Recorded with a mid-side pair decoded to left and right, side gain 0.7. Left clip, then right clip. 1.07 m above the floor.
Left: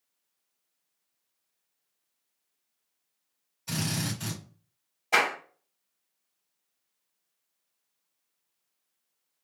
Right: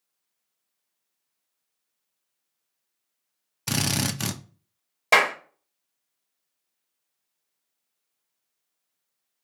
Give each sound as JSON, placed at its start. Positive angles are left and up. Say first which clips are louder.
{"t": 3.7, "sound": "a drill", "louder": "right 6 dB", "azimuth_deg": -60, "distance_m": 0.7}
{"t": 5.1, "sound": "a clap", "louder": "right 5 dB", "azimuth_deg": -70, "distance_m": 1.3}